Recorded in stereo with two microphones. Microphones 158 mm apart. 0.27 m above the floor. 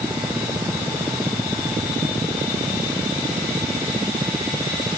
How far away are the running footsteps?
No running footsteps in this recording.